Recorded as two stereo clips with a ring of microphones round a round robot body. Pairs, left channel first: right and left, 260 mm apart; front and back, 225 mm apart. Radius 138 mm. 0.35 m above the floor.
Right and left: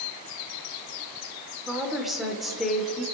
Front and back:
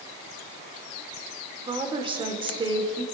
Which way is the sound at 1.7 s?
Straight behind.